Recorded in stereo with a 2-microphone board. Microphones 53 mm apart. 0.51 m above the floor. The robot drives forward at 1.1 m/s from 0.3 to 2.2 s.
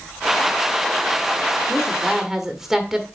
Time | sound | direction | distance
1.7 | a woman speaking | 10° right (ahead or behind) | 1.4 m